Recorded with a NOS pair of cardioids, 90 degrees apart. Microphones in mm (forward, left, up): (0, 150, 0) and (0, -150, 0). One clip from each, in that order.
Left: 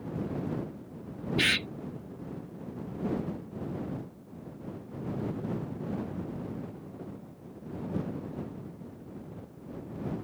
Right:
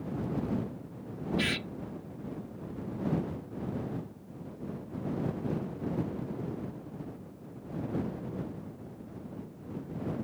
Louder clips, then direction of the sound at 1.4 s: Left 6 dB; 45° left.